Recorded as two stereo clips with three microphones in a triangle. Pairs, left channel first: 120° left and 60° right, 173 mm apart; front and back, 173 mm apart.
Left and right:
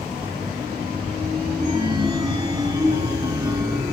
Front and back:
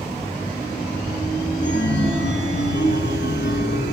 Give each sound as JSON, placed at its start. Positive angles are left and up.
{"t": 1.6, "sound": "a chime", "azimuth_deg": 10, "distance_m": 2.5}